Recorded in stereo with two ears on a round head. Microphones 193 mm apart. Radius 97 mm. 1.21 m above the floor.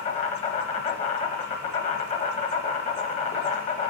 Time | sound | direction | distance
0.0 | an insect | 30° left (ahead or behind) | 0.9 m